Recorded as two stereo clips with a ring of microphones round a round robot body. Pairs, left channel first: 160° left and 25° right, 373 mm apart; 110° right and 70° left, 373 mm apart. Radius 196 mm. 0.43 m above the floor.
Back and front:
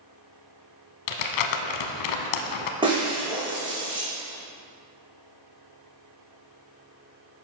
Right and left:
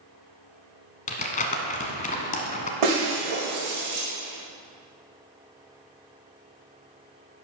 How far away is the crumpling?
About 1.0 m.